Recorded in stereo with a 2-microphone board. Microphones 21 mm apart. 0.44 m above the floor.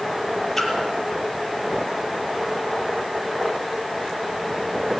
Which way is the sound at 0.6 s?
20° left (ahead or behind).